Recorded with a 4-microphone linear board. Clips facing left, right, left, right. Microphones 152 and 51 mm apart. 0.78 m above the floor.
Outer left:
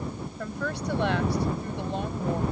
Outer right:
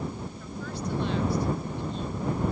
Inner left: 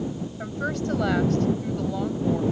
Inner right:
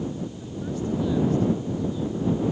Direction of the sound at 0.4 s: 80° left.